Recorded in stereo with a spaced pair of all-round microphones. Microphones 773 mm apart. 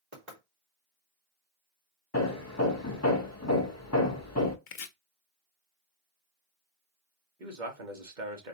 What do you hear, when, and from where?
0.1 s knocking: 60° right (ahead or behind), 2.5 m
2.1 s hammering: 20° left (ahead or behind), 0.9 m
4.7 s chopping: 85° left, 0.8 m
7.4 s a man speaking: 75° right (ahead or behind), 1.7 m